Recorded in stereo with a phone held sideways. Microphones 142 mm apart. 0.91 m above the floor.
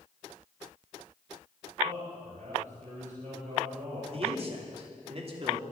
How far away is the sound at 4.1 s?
About 2.5 m.